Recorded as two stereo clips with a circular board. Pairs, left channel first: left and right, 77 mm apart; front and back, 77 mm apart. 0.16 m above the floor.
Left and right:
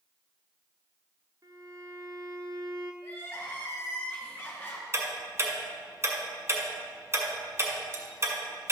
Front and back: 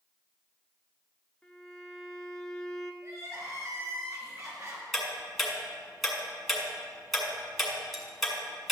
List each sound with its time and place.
1.4 s a violin: 80° right, 1.0 m
3.0 s crying: 145° left, 2.5 m
4.9 s ticking: 90° right, 1.9 m